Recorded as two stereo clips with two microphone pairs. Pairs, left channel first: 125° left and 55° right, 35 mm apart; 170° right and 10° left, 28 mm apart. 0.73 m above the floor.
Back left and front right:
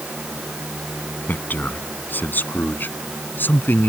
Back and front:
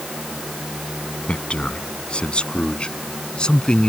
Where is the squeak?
I don't hear a squeak.